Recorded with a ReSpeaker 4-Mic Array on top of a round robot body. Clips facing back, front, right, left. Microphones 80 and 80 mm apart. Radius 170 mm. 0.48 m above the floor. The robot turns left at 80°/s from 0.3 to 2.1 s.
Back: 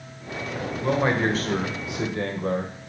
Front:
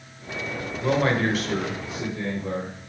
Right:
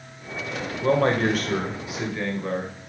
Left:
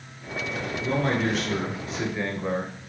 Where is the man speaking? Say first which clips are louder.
Even, right 5 dB; 85° right, 2 m; by 2.9 s 170° left, 2 m.